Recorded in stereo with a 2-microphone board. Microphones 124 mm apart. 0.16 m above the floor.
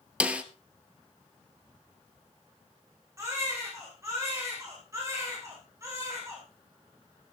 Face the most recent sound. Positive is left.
turn(degrees=-25)  # may be behind; listen again after turning